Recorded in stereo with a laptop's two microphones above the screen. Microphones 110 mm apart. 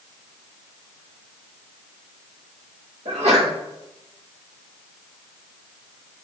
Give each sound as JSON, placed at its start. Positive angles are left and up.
{"t": 3.0, "sound": "a sneeze", "side_deg": -65, "distance_m": 1.2}